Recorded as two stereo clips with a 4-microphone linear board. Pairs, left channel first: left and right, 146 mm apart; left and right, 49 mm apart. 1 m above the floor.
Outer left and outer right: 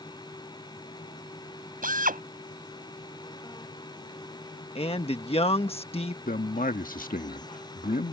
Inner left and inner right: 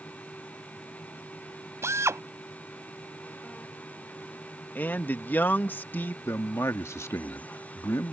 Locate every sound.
1.8 s a drill: 85° right
4.8 s a man speaking: 45° left (ahead or behind)
6.2 s a man speaking: 80° left